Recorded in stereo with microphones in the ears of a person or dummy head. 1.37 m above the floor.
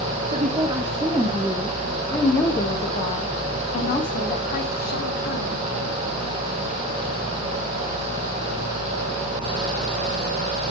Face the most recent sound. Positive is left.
turn(degrees=55)  # may be behind; listen again after turning